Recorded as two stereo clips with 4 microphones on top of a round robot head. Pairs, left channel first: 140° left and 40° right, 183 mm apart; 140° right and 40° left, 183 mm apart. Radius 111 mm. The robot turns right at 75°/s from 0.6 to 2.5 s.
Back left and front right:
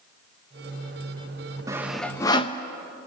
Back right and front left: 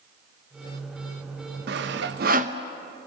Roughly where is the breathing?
No breathing in this recording.